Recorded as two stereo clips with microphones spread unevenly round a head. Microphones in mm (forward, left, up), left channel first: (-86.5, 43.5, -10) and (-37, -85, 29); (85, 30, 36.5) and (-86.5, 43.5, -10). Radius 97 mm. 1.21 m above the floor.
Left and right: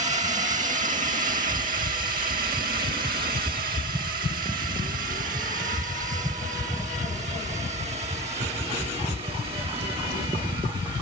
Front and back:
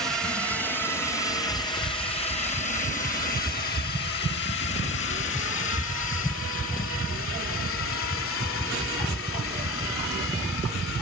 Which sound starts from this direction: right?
A drone, at 0.0 s.